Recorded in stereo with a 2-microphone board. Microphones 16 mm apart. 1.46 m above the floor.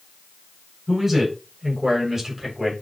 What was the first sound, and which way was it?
A man speaking, 20° right (ahead or behind).